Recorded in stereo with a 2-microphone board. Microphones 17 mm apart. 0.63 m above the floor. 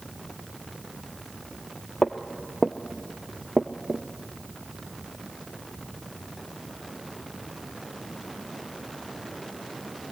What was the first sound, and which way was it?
Footsteps, 35° left (ahead or behind).